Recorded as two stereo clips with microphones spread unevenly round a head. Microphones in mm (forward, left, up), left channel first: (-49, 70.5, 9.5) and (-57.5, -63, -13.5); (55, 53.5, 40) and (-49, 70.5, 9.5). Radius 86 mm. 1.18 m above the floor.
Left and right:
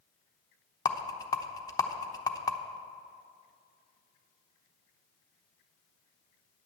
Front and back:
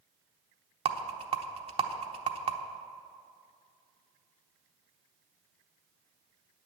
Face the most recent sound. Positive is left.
turn(degrees=155)